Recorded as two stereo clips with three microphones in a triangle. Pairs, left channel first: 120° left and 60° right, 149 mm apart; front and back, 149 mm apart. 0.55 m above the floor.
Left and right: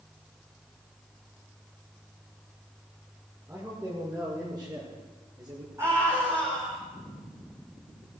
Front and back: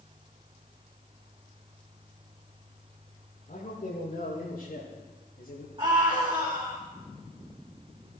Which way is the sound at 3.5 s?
10° left.